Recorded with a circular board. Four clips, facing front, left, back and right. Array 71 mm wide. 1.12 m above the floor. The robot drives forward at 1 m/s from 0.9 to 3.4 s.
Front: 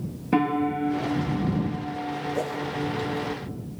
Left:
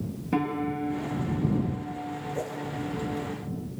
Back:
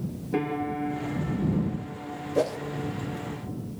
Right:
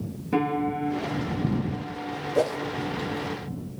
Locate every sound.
0.3 s a piano: 5° left, 5 m
2.4 s a whoosh: 115° right, 1.2 m; by 2.6 s 125° right, 1.2 m